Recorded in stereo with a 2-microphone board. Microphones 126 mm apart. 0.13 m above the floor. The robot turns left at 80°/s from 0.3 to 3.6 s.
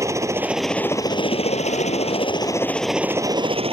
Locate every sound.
0.0 s a helicopter: 155° right; by 3.7 s 55° right